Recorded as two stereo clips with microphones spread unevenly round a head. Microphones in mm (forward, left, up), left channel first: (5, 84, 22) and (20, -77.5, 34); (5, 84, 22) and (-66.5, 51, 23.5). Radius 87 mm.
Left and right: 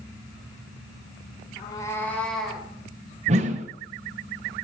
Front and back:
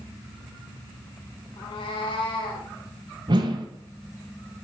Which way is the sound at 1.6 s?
30° left.